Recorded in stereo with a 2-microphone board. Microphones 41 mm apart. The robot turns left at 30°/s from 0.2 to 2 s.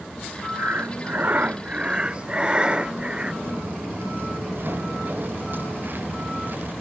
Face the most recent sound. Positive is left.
turn(degrees=-50)  # may be behind; listen again after turning